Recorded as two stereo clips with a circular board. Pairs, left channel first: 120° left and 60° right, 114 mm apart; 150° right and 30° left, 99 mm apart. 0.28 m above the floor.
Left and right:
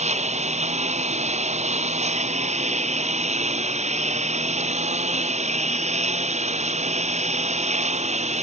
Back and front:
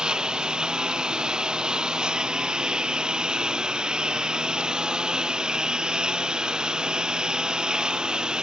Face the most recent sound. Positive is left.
turn(degrees=-50)